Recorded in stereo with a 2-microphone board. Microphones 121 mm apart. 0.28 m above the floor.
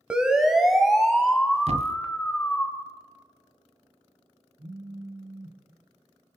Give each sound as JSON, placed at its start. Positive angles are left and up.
{"t": 0.1, "sound": "a siren", "side_deg": -10, "distance_m": 2.0}
{"t": 1.7, "sound": "a thud", "side_deg": -55, "distance_m": 1.0}
{"t": 4.6, "sound": "a phone buzzing", "side_deg": -45, "distance_m": 3.0}